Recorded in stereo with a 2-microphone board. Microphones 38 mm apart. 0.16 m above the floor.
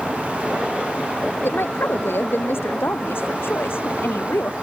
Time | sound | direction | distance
1.4 | a woman speaking | 75° left (ahead or behind) | ?